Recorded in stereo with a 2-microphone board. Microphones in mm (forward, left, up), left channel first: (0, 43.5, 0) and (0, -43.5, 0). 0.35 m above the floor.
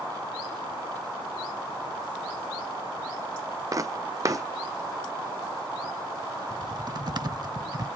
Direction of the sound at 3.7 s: 40° right (ahead or behind).